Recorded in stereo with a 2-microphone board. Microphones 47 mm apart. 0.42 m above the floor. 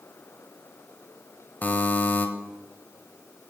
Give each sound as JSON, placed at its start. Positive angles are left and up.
{"t": 1.6, "sound": "a buzzer", "side_deg": 35, "distance_m": 0.9}